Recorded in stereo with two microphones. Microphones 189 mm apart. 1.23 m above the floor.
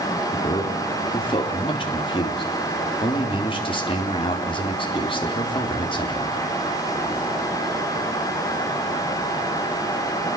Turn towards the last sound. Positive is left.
turn(degrees=25)  # may be behind; listen again after turning